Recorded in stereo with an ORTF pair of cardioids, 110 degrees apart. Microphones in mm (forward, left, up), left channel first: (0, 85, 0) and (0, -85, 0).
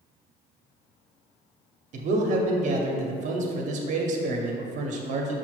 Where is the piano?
No piano in this recording.